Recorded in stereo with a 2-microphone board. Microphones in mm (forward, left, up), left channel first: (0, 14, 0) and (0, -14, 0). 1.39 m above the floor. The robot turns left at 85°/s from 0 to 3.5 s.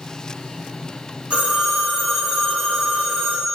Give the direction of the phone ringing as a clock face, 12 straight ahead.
3 o'clock.